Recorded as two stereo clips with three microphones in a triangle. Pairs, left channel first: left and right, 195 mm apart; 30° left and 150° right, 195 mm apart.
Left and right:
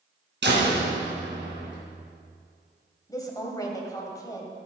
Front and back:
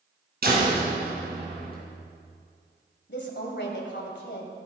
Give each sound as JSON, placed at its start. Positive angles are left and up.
{"t": 0.4, "sound": "a door slam", "azimuth_deg": -115, "distance_m": 3.5}
{"t": 3.1, "sound": "a woman speaking", "azimuth_deg": 20, "distance_m": 2.0}